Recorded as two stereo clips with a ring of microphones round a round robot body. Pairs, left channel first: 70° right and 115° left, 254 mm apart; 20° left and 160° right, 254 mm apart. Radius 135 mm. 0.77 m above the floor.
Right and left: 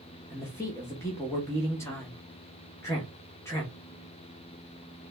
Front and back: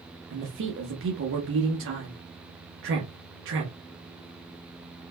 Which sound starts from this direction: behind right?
A man speaking, at 0.3 s.